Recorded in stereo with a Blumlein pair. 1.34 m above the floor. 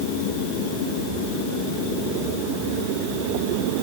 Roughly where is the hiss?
I don't hear a hiss.